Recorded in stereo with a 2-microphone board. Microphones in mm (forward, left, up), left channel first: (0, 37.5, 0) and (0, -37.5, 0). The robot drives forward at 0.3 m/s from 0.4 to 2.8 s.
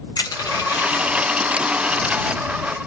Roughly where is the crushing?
Left.